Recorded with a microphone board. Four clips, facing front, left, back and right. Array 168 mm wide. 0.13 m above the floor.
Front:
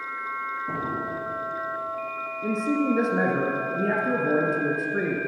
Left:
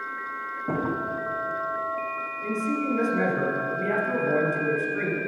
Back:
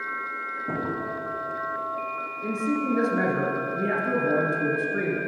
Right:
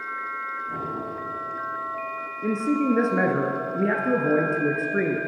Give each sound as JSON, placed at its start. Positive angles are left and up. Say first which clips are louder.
{"t": 0.7, "sound": "a drawer", "louder": "left 9 dB, back 3 dB", "azimuth_deg": 105, "distance_m": 2.0}
{"t": 2.4, "sound": "a man speaking", "louder": "right 5 dB, front 2 dB", "azimuth_deg": -80, "distance_m": 1.9}